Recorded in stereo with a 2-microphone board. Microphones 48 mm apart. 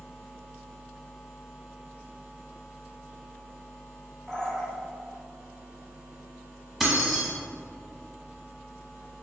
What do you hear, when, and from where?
4.3 s a bird: 10° left (ahead or behind), 1.2 m
6.8 s keys jangling: centre (ahead or behind), 0.8 m